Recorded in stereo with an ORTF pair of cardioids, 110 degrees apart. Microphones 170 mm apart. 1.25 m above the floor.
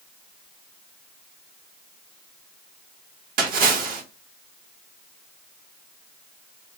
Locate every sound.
3.4 s a splash: 60° right, 1.4 m